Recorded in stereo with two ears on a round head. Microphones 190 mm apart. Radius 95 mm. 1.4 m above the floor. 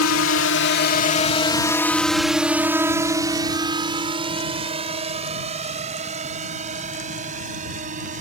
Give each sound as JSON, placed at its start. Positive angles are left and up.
{"t": 0.0, "sound": "a drone", "side_deg": 75}